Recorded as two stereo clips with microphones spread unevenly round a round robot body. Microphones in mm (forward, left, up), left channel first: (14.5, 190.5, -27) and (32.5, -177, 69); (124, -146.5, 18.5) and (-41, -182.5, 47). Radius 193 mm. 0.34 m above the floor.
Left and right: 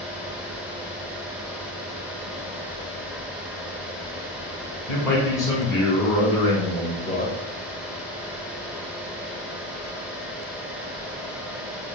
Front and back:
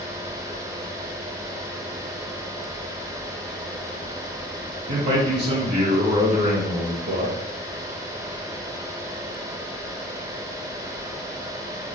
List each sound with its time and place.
4.9 s a man speaking: 165° left, 1.3 m